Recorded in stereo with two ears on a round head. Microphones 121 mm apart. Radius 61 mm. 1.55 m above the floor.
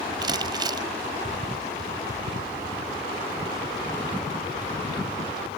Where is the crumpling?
30° right (ahead or behind).